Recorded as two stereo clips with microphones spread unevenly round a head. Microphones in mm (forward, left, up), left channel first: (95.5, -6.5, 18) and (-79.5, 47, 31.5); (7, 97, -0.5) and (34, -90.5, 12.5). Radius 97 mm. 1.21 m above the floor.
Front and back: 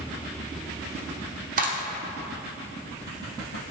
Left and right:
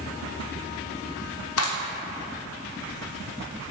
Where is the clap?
115° left, 0.9 m.